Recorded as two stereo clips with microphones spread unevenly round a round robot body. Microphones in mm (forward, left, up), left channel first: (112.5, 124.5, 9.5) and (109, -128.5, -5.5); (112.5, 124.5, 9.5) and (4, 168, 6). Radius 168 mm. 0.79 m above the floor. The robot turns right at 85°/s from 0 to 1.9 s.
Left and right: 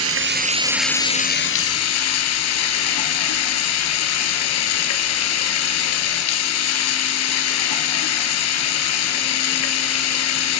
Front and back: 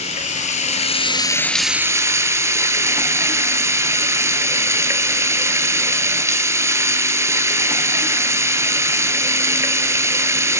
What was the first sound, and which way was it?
Running water, 70° right.